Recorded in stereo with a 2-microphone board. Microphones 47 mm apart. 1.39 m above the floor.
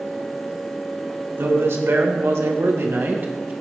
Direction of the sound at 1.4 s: 75° right (ahead or behind).